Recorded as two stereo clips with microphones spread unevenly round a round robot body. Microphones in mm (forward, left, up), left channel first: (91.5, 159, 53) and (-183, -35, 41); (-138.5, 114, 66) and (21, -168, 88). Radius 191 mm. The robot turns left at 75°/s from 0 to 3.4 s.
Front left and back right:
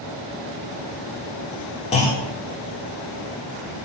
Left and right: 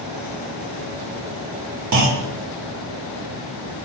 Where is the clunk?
35° right, 1.4 m; by 2.3 s 60° right, 1.4 m.